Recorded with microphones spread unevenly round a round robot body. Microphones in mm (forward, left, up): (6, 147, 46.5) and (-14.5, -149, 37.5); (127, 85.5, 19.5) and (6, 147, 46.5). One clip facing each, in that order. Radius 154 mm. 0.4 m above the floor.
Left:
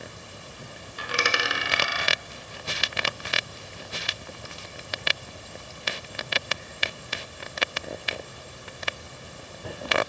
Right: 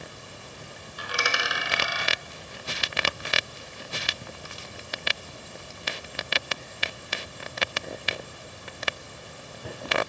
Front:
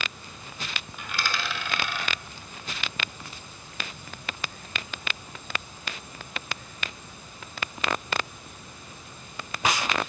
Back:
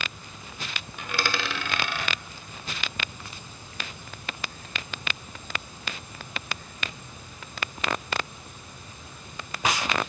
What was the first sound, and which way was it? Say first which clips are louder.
A dropped coin: left 3 dB, back 3 dB; 145° left.